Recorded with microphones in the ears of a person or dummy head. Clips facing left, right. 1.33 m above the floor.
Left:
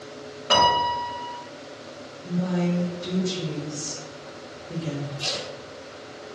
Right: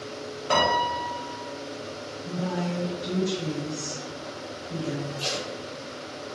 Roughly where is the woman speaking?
Left.